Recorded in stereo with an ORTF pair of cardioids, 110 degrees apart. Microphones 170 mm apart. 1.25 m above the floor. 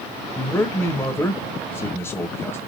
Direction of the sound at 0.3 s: 15° left.